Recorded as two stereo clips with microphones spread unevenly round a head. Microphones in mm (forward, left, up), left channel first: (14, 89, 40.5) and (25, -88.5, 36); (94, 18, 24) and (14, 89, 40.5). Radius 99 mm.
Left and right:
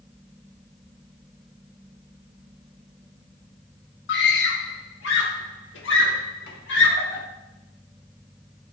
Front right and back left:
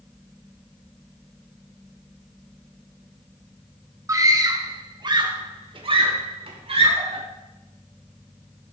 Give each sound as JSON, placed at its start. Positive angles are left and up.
{"t": 4.1, "sound": "a scream", "azimuth_deg": 80, "distance_m": 3.0}